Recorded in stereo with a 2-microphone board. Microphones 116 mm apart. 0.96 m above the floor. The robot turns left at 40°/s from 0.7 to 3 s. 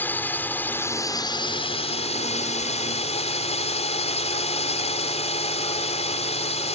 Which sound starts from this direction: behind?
A drone, at 0.0 s.